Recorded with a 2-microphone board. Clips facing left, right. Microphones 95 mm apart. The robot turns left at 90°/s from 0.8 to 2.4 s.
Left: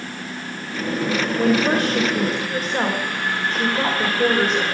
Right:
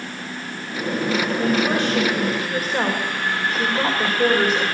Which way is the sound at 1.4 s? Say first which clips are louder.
Left 4 dB; 85° left.